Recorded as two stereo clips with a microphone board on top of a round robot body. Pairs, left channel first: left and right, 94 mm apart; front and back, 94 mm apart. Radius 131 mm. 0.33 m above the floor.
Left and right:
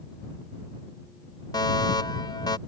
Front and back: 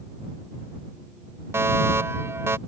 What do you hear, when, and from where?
1.5 s a fire alarm: 120° left